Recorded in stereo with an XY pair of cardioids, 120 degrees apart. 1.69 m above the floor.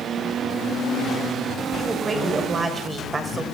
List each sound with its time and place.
1.8 s a woman speaking: 25° right, 6 m; by 3.4 s 30° right, 6.5 m